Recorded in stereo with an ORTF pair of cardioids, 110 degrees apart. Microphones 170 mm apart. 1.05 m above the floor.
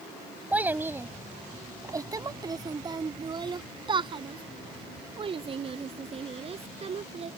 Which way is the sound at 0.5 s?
10° right.